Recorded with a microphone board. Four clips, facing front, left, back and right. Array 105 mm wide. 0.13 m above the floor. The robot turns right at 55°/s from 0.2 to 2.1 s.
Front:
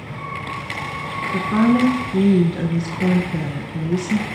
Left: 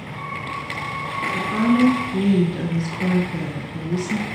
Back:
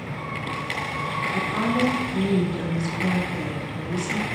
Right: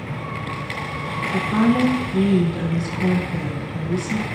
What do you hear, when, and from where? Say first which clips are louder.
1.3 s a woman speaking: right 1 dB, front 9 dB; 25° right, 1.4 m; by 4.2 s 15° left, 1.4 m